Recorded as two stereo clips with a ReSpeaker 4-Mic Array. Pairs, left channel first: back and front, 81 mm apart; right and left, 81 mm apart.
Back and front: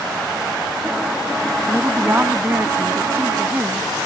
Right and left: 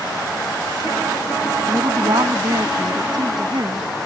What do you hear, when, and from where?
1.7 s a woman speaking: 65° left